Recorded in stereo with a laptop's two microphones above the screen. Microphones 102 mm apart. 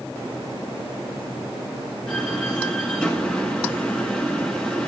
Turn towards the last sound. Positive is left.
turn(degrees=10)  # may be behind; listen again after turning